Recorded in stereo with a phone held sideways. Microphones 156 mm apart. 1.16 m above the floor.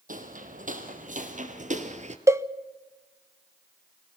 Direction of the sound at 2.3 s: 20° right (ahead or behind).